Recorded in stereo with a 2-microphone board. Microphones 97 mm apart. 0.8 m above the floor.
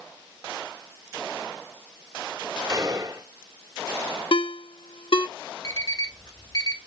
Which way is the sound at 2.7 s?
40° right (ahead or behind).